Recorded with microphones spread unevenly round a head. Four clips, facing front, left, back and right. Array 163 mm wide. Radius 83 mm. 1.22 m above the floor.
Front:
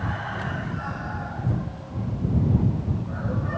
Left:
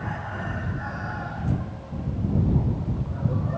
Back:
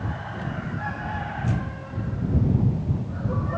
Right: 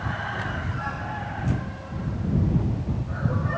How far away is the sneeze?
No sneeze in this recording.